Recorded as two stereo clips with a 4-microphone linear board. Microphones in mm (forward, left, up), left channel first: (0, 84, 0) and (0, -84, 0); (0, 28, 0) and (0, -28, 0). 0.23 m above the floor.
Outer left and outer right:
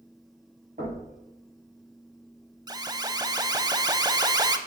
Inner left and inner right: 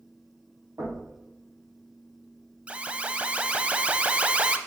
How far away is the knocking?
About 5.5 m.